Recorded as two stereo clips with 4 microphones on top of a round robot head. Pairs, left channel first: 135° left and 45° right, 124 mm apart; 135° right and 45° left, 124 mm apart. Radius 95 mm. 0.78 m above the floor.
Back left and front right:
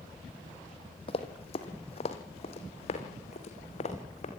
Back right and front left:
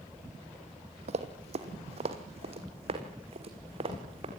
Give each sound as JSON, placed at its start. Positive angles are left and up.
{"t": 1.1, "sound": "running footsteps", "azimuth_deg": 85, "distance_m": 2.5}